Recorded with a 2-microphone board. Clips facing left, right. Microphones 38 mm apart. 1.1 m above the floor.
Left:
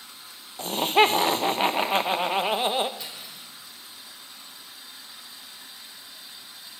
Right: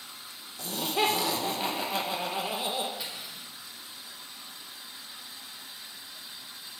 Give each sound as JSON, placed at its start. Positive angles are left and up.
{"t": 0.6, "sound": "laughter", "side_deg": 50, "distance_m": 0.7}
{"t": 3.0, "sound": "cutlery clinking", "side_deg": -10, "distance_m": 1.9}